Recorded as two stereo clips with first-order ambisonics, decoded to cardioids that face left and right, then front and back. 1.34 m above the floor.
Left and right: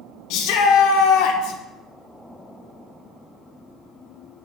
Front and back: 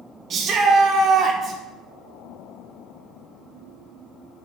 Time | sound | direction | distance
0.3 | a shout | 115° left | 1.0 m